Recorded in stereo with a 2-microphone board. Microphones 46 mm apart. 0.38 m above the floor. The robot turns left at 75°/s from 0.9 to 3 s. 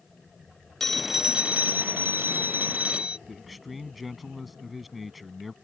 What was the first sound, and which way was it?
A phone ringing, 10° left.